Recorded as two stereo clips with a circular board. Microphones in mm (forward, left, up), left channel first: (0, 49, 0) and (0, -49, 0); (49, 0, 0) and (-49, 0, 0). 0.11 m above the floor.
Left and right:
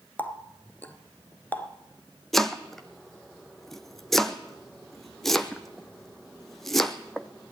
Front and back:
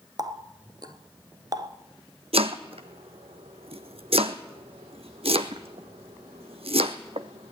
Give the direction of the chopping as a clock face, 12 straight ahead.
6 o'clock.